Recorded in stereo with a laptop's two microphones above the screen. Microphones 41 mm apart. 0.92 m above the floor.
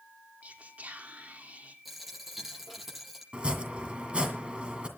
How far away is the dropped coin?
About 8.5 m.